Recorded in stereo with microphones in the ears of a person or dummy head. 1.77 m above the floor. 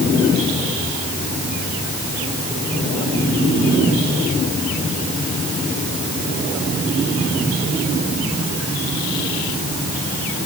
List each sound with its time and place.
Only background noise.